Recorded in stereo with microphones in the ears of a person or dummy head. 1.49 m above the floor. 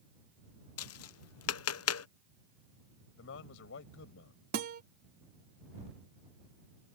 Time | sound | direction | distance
0.8 | tapping | 75° left (ahead or behind) | ?
3.2 | a man speaking | 70° left (ahead or behind) | ?
4.5 | a guitar | 50° right (ahead or behind) | ?